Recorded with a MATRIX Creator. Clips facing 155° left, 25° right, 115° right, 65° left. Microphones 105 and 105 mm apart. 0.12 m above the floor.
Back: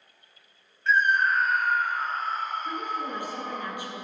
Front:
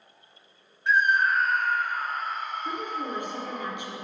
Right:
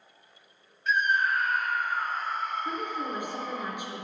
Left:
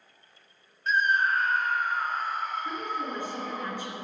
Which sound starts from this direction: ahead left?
A scream, at 0.9 s.